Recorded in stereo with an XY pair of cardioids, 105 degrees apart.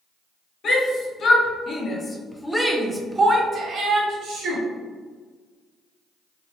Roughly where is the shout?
Ahead left.